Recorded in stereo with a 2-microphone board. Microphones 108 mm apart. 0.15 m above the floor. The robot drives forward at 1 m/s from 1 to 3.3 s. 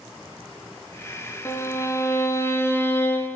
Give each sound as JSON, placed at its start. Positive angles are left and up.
{"t": 1.4, "sound": "a violin", "side_deg": 25, "distance_m": 1.3}